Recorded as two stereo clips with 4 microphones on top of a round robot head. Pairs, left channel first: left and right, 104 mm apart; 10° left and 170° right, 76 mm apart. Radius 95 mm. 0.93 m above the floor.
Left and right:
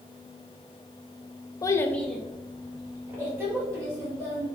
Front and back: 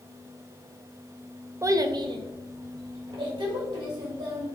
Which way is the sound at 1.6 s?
140° left.